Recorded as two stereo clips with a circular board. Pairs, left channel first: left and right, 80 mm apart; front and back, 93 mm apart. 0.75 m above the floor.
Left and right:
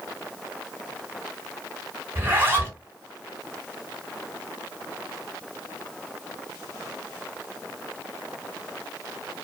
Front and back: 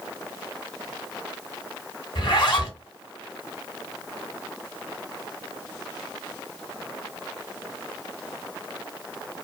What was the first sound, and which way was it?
A zipper, 30° right.